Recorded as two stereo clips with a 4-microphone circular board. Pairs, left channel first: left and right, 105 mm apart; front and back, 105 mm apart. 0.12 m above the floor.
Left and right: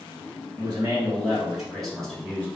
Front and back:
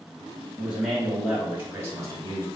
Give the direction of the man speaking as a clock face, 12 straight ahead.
2 o'clock.